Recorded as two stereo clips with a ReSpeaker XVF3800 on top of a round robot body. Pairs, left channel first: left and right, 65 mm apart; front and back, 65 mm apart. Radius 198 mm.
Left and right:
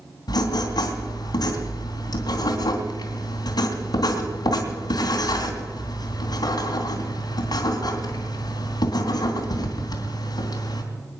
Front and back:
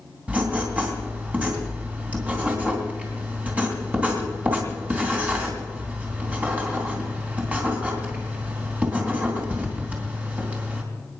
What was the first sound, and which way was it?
Writing, 110° left.